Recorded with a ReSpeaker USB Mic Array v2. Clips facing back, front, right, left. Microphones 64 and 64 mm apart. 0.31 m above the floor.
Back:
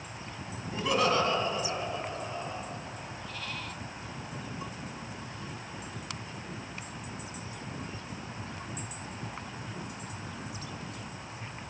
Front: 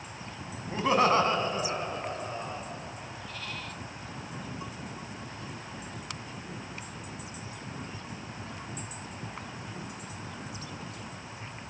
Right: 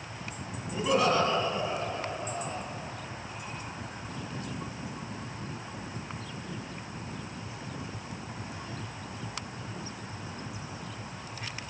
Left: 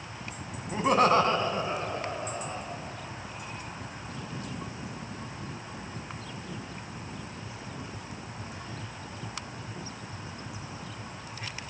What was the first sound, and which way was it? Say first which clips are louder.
Laughter: front 3 dB, left 3 dB; 55° left.